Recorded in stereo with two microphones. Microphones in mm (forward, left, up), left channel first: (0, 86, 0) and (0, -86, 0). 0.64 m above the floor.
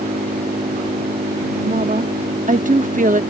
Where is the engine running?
55° right (ahead or behind).